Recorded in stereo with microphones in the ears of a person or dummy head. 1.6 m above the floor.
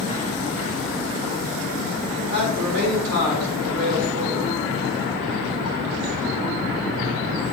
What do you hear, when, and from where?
2.1 s a man speaking: 45° right (ahead or behind), 1.4 m